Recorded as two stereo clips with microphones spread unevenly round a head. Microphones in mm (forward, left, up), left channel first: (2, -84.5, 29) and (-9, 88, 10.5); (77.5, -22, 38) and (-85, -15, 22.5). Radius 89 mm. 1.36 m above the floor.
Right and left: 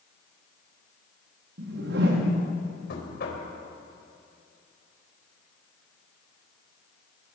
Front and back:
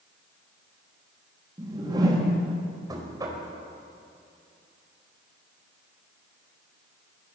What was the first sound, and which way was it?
A whoosh, 110° left.